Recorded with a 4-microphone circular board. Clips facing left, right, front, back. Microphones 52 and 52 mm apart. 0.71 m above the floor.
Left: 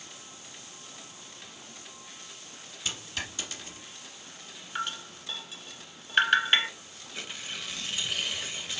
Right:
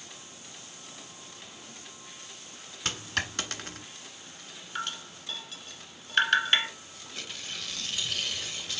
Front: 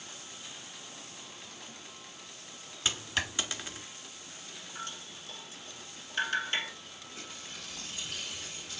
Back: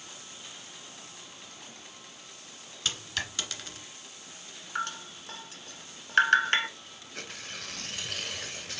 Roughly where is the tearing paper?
Behind.